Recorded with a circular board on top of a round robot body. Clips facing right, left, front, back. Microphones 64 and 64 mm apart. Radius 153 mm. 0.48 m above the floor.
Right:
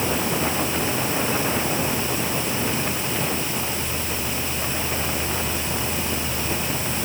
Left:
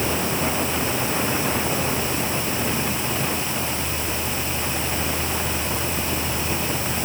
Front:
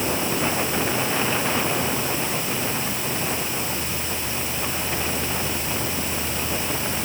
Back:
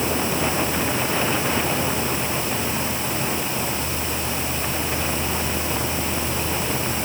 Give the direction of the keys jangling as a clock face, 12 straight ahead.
I don't hear keys jangling.